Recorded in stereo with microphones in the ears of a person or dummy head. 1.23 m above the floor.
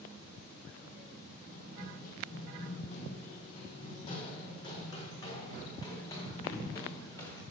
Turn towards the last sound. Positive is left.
turn(degrees=15)  # may be behind; listen again after turning